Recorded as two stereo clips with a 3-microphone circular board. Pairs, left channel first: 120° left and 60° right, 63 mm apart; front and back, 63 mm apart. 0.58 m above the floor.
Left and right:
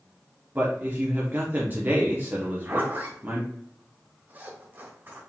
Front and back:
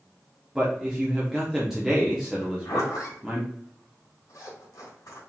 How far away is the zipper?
About 2.5 m.